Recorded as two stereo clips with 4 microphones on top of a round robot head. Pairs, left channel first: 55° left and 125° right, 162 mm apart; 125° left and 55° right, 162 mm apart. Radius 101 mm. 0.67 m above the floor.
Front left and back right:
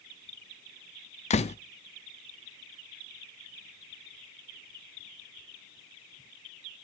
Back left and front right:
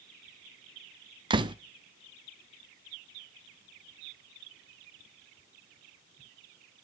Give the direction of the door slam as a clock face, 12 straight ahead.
12 o'clock.